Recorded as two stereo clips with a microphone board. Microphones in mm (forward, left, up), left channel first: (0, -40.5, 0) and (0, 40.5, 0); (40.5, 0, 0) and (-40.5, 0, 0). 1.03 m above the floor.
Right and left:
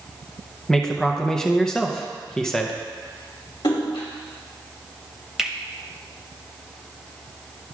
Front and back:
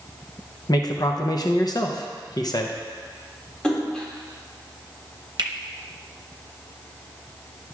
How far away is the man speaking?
About 0.6 m.